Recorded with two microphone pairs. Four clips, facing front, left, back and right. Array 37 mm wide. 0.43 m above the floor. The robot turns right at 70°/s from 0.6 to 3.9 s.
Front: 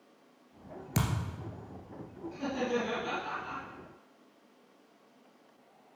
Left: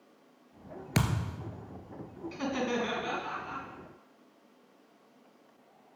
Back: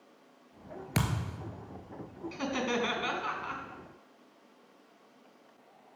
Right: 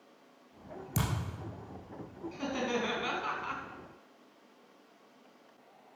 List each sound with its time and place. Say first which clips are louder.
0.9 s a thud: left 4 dB, back 1 dB; 120° left, 1.7 m; by 1.5 s 160° left, 1.7 m
2.3 s laughter: left 2 dB, even; 150° left, 3.5 m; by 3.6 s 120° right, 3.5 m